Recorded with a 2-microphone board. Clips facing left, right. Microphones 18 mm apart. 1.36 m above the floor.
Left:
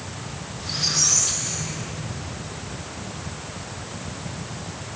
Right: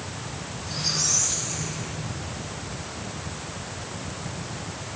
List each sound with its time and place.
0.6 s a squeak: 70° left (ahead or behind), 5 m